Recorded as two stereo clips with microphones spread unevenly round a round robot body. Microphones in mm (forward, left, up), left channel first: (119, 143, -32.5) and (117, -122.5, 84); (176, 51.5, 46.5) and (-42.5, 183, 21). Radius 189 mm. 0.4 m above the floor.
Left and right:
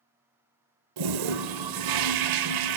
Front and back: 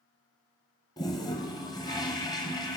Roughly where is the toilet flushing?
Right.